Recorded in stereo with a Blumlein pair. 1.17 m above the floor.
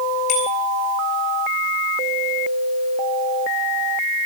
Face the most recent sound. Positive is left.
turn(degrees=40)